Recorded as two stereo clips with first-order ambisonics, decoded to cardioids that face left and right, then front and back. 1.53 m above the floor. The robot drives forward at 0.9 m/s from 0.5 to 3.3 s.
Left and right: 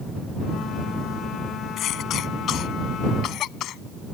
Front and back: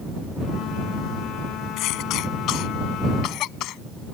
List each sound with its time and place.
1.8 s a cough: 35° left; by 3.8 s 40° left